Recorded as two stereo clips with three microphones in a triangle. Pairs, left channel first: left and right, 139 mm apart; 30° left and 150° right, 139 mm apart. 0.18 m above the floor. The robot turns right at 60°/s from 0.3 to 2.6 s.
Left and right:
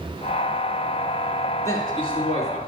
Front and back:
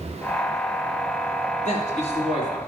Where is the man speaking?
25° left, 2.5 m; by 2.6 s 80° left, 2.5 m.